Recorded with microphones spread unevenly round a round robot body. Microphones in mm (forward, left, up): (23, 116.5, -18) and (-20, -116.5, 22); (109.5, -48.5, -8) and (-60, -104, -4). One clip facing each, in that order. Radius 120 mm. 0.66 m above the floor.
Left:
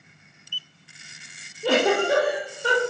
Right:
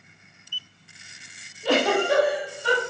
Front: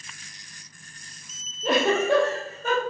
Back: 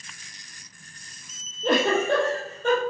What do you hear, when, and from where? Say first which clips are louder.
1.6 s a giggle: left 1 dB, even; 105° left, 2.5 m